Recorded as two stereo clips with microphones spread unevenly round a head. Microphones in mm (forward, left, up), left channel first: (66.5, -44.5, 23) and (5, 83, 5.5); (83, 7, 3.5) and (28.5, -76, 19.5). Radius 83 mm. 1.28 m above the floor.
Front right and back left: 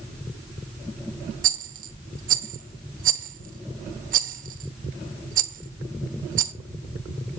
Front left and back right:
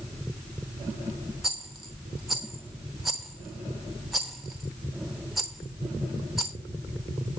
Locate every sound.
1.4 s a rattle: 155° left, 0.8 m